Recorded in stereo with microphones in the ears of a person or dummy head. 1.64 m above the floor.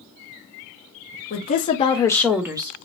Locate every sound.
1.3 s a woman speaking: 50° left (ahead or behind), 0.8 m; by 2.8 s 25° right (ahead or behind), 0.6 m